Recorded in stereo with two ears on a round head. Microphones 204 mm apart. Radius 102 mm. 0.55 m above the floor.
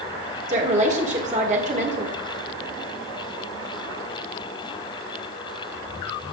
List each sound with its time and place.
0.5 s a woman speaking: 35° right (ahead or behind), 1.6 m